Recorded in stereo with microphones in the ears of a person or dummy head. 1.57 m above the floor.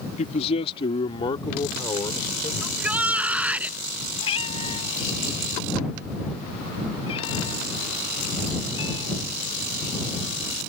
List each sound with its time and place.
0.2 s a man speaking: 35° left (ahead or behind); by 2.5 s 15° left (ahead or behind)
2.6 s a shout: 10° right (ahead or behind)
4.2 s a cat meowing: 30° left (ahead or behind)